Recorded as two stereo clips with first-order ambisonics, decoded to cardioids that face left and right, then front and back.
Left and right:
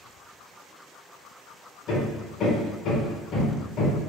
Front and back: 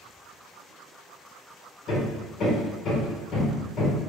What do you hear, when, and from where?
1.9 s hammering: 40° left, 1.5 m